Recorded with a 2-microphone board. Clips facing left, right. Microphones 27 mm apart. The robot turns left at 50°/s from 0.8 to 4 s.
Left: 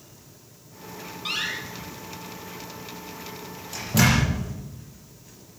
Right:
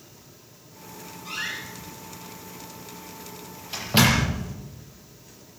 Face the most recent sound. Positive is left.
turn(degrees=-50)  # may be behind; listen again after turning